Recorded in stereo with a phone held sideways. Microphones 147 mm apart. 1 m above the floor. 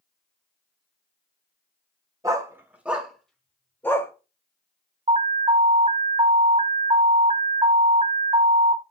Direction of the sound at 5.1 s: 45° right (ahead or behind).